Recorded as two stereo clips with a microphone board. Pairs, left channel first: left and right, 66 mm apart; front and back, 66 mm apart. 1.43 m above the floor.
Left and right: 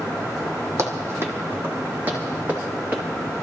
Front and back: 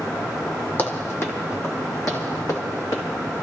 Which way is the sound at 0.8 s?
55° right.